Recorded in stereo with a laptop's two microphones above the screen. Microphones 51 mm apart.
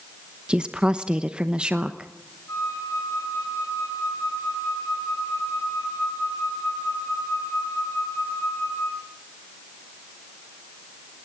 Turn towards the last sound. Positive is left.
turn(degrees=80)